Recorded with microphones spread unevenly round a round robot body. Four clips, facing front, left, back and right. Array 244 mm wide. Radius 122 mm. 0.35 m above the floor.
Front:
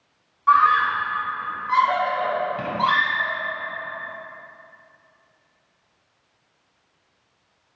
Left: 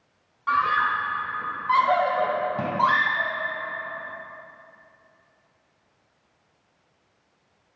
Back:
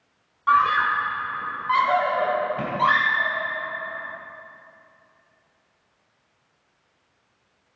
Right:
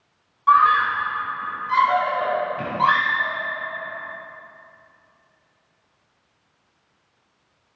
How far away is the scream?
About 1.3 m.